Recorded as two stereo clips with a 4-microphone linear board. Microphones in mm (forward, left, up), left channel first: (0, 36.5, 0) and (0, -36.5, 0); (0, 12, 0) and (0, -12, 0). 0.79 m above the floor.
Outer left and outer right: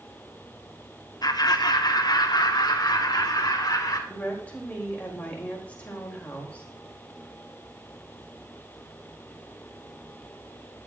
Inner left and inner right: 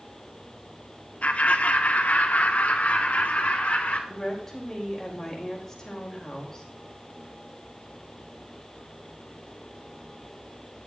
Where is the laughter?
65° left (ahead or behind), 1.5 m.